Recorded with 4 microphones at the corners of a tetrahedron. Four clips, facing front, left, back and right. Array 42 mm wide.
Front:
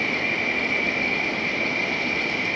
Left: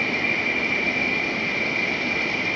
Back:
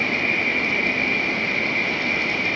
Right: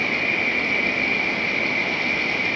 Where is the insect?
130° right, 1.2 m.